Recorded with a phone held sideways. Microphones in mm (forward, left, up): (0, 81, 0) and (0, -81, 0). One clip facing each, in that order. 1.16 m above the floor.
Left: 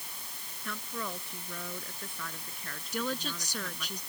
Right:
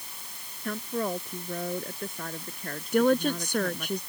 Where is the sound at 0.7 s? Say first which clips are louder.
Right 9 dB; 40° right (ahead or behind).